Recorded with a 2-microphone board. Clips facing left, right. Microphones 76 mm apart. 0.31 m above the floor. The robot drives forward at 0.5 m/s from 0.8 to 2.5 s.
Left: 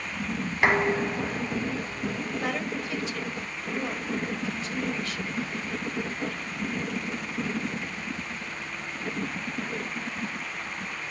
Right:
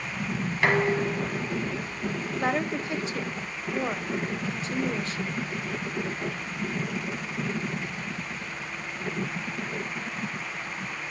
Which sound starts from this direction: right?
A woman speaking, at 2.4 s.